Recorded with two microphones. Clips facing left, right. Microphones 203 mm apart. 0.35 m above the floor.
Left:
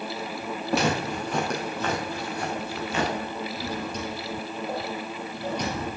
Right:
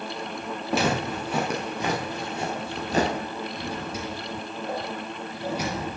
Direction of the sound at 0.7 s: Centre (ahead or behind).